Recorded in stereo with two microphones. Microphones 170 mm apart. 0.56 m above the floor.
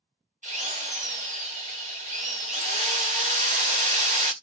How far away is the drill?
About 0.9 m.